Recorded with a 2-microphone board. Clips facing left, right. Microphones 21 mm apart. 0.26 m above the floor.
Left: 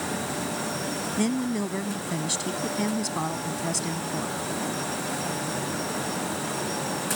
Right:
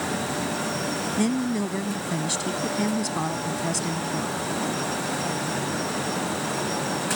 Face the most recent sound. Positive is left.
turn(degrees=-5)  # may be behind; listen again after turning